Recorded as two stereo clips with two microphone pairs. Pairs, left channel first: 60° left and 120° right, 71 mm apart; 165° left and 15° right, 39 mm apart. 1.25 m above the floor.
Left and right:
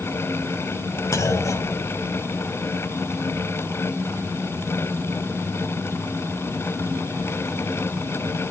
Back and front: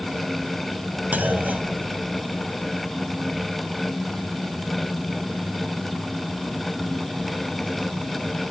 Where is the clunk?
20° left, 2 m.